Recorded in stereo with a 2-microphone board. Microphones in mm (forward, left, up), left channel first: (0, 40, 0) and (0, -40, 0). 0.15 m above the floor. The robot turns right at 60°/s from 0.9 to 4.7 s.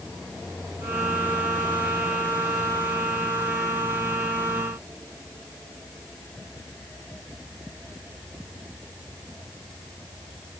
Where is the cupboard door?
No cupboard door in this recording.